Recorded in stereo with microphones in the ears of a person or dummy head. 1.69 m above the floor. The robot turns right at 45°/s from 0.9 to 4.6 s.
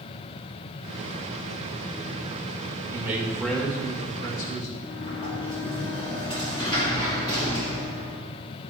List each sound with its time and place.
2.9 s a man speaking: 25° right, 2 m; by 4.7 s 55° left, 2 m
4.8 s a sliding door: 25° left (ahead or behind), 1.4 m